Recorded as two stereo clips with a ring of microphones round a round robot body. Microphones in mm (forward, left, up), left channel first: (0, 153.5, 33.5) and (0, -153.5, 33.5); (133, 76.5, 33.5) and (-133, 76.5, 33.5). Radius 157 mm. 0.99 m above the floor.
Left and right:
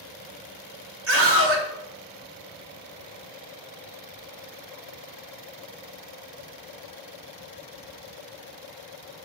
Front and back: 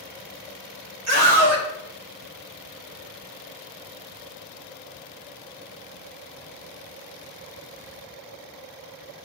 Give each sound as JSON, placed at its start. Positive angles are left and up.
{"t": 1.1, "sound": "a scream", "azimuth_deg": -140, "distance_m": 2.5}